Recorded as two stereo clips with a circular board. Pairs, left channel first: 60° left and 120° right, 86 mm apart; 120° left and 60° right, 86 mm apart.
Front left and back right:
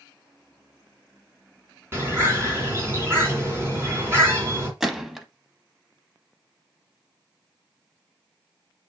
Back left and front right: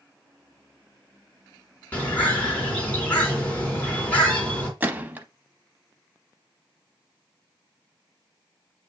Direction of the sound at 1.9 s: 170° right.